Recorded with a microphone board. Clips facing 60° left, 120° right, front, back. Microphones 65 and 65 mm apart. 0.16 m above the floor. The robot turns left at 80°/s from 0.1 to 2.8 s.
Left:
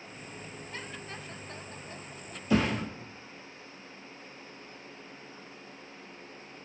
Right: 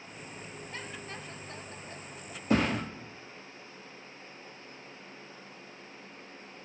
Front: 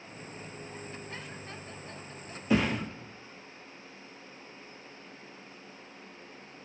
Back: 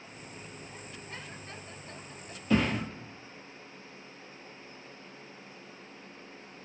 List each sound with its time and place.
2.5 s a thud: 75° right, 0.9 m; by 2.8 s 100° right, 0.9 m